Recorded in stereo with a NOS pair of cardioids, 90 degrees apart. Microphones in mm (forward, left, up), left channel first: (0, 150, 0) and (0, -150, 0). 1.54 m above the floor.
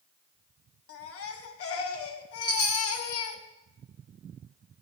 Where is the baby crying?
50° left, 1.1 m.